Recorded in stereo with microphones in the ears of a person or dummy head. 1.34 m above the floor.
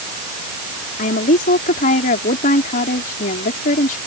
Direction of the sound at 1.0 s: 50° left (ahead or behind).